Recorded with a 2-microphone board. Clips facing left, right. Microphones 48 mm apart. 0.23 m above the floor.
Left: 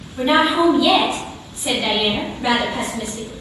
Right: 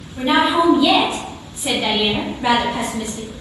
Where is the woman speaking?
15° right (ahead or behind), 1.5 m; by 3.3 s 20° right (ahead or behind), 1.9 m.